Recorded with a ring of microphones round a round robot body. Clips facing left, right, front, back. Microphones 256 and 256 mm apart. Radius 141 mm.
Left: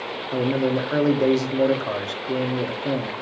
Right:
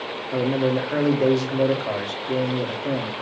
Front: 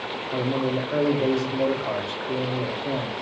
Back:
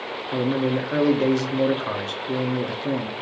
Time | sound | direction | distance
0.3 | a man speaking | 170° left | 1.4 m